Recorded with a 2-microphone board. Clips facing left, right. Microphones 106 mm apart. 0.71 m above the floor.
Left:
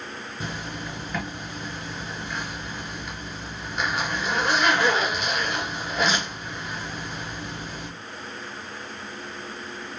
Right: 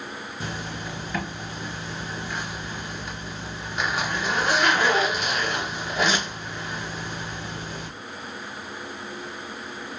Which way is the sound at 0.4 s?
5° right (ahead or behind).